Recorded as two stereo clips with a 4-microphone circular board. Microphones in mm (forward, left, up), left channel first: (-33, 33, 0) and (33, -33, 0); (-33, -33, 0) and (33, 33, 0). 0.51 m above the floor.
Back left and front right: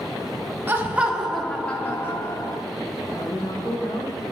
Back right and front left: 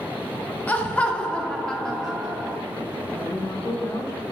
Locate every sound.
0.7 s laughter: 80° right, 1.1 m; by 2.6 s 130° left, 1.2 m
3.1 s a woman speaking: 175° right, 2 m